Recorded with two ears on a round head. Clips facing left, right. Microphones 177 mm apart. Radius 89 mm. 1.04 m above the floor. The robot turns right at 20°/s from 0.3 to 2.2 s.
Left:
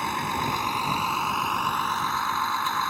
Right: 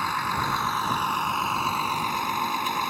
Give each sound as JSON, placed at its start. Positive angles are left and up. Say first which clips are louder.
{"t": 0.0, "sound": "a vehicle", "louder": "left 1 dB", "azimuth_deg": 160}